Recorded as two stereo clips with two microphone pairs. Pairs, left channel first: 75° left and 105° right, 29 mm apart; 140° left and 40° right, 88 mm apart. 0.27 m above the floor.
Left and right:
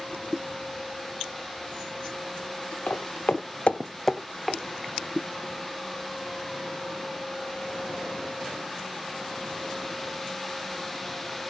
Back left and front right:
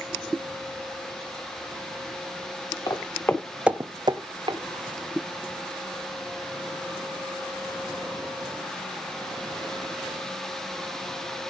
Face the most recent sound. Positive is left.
turn(degrees=-25)